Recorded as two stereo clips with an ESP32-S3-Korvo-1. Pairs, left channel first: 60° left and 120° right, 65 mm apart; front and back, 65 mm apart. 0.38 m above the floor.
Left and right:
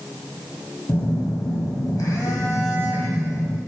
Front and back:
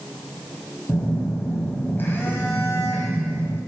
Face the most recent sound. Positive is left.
turn(degrees=50)